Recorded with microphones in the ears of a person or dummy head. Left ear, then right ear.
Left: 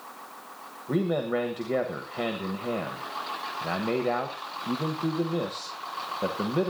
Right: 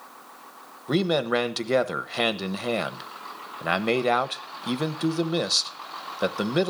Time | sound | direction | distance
0.9 | a man speaking | 75° right (ahead or behind) | 1.1 m